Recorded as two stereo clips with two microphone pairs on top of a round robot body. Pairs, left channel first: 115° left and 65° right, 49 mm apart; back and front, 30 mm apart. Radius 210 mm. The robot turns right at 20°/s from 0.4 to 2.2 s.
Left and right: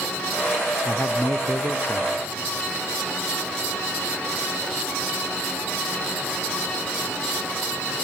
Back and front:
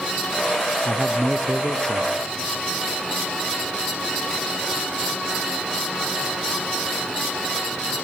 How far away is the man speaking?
About 1.0 m.